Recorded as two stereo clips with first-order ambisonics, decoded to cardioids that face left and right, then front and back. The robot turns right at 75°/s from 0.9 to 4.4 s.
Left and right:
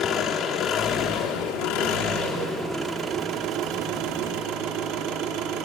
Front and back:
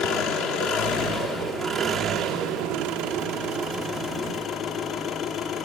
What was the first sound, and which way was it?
An engine running, 30° left.